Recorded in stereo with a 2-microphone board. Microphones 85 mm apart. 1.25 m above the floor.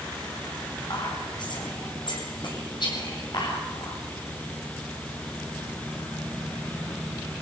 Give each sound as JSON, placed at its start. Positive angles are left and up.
{"t": 0.9, "sound": "whispering", "side_deg": 55, "distance_m": 8.0}